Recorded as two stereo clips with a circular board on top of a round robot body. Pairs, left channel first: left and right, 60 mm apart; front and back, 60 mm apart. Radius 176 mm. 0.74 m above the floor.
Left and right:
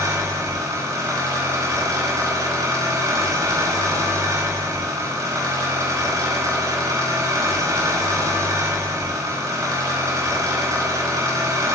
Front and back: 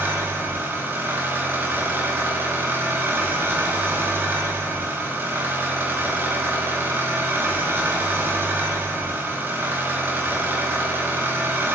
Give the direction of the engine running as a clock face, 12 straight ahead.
4 o'clock.